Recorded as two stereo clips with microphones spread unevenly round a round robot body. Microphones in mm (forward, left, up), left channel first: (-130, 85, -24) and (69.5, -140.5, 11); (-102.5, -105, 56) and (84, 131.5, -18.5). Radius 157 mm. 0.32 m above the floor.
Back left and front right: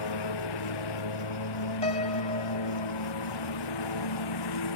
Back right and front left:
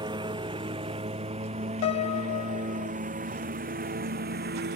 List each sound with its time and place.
0.0 s a lawn mower: 130° left; by 4.8 s 110° left
1.8 s a piano: 165° right